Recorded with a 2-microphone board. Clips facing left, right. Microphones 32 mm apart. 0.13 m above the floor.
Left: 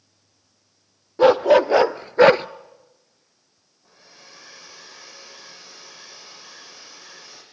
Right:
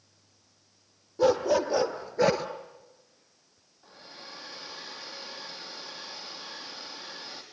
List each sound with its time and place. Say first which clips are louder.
1.2 s a dog barking: left 9 dB; 50° left (ahead or behind), 1.2 m
3.8 s a hair dryer: right 3 dB; 45° right (ahead or behind), 4.5 m